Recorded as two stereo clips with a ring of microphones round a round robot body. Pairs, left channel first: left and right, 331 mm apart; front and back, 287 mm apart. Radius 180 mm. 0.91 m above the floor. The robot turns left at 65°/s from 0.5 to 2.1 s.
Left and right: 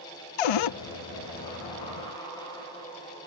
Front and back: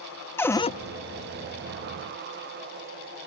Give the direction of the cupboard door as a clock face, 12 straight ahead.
9 o'clock.